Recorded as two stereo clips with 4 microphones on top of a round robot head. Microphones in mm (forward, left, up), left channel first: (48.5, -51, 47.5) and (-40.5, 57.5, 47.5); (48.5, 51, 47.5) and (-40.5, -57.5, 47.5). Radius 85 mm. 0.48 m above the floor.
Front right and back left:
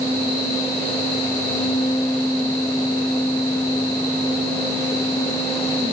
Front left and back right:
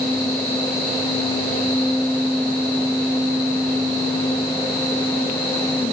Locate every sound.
Only background noise.